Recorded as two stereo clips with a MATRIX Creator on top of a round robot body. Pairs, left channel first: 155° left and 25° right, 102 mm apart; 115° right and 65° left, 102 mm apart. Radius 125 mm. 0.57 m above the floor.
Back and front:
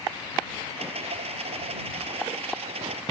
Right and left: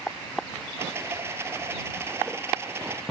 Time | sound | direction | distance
0.8 | a rattle | straight ahead | ?